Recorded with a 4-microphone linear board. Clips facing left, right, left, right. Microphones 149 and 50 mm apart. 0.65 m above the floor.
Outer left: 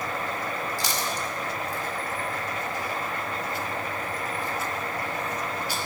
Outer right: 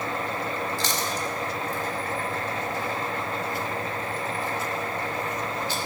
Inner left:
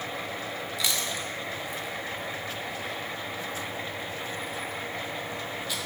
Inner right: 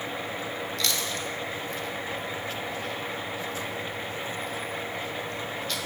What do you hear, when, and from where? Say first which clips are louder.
0.8 s chewing: outer right 1 dB, even; 10° left (ahead or behind), 1.3 m